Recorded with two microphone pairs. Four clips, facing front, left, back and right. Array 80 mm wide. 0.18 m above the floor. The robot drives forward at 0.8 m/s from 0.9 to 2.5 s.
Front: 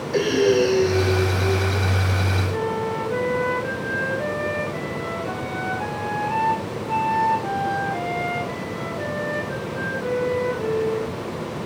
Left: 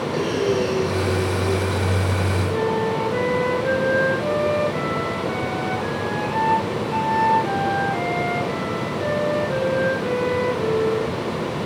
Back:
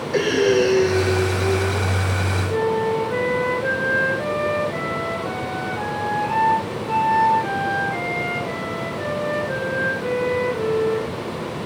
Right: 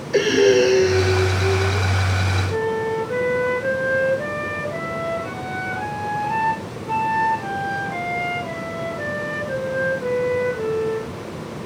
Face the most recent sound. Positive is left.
turn(degrees=-140)